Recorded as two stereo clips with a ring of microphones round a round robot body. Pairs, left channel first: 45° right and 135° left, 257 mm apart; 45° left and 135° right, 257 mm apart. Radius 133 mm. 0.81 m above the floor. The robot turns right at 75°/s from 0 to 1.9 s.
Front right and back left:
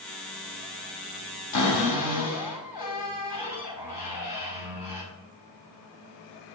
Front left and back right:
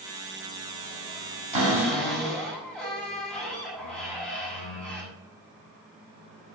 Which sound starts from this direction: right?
A cupboard door, at 1.5 s.